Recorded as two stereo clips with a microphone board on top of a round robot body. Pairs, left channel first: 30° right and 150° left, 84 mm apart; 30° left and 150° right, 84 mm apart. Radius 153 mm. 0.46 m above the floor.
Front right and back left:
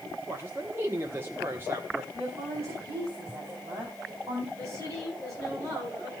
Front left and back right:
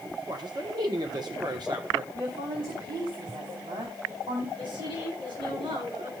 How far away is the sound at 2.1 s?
About 5 m.